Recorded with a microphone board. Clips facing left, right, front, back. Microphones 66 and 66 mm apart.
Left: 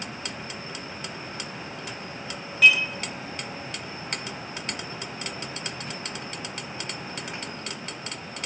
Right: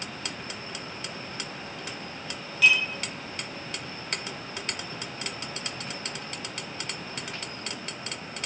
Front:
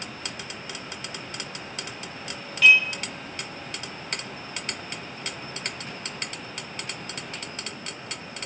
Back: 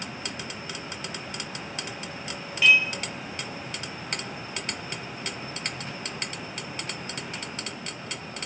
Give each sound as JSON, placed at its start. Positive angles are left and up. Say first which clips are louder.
{"t": 2.6, "sound": "dishes clattering", "louder": "left 3 dB, front 2 dB", "azimuth_deg": 115, "distance_m": 1.0}